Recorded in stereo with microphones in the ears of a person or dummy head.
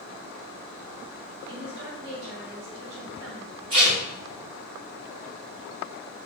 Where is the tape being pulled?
20° right (ahead or behind), 1.1 m.